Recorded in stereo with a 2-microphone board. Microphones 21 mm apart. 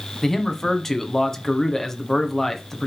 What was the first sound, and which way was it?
A man speaking, 20° left (ahead or behind).